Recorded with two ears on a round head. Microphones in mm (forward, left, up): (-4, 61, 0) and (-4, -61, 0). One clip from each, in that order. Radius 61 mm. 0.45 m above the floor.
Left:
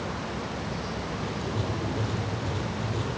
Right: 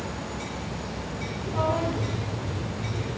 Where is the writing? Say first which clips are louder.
Right 4 dB; 25° left (ahead or behind), 6 m.